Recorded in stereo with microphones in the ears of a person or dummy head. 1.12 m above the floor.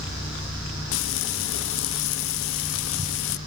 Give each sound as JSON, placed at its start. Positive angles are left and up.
{"t": 0.9, "sound": "frying", "side_deg": 65, "distance_m": 0.7}